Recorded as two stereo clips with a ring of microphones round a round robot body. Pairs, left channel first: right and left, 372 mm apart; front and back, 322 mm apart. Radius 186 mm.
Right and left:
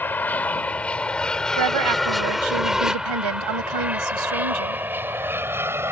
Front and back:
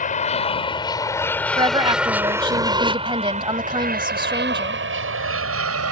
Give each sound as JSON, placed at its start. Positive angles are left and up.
{"t": 0.0, "sound": "an aircraft", "azimuth_deg": -10}
{"t": 1.6, "sound": "a woman speaking", "azimuth_deg": 105}